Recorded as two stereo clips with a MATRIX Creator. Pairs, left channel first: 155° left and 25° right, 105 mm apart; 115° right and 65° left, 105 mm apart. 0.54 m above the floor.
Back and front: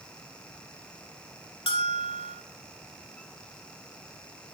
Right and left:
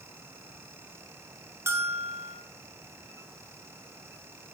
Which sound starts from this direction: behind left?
A bell, at 1.7 s.